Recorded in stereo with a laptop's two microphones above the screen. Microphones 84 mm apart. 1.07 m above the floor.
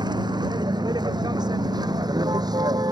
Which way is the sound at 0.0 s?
55° right (ahead or behind).